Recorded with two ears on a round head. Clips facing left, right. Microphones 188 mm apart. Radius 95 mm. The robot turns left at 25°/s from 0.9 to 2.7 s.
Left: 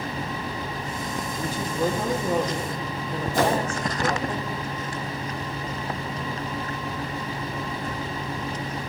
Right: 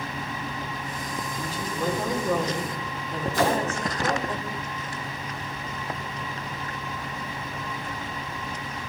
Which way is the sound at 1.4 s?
45° left.